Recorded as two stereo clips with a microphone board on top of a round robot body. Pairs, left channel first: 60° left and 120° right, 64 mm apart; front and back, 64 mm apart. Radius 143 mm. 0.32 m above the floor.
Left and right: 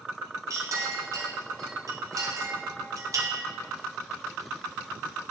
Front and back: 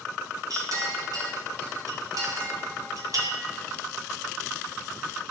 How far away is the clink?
About 2 m.